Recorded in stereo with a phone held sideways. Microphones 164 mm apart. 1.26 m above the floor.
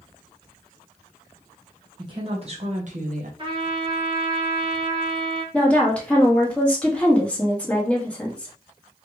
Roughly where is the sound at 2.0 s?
Right.